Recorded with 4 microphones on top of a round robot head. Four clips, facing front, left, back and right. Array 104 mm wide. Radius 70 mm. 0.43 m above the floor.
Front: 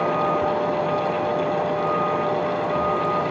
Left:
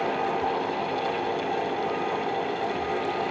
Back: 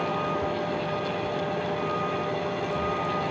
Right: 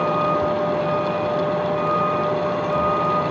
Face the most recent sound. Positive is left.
turn(degrees=-60)